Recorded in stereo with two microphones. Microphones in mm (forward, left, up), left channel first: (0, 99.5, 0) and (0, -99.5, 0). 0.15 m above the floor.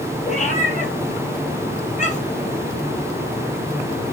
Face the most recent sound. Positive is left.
turn(degrees=35)  # may be behind; listen again after turning